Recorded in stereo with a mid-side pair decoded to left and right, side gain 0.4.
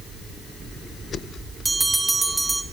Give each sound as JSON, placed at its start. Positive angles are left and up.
{"t": 1.6, "sound": "a bell", "azimuth_deg": -25, "distance_m": 1.2}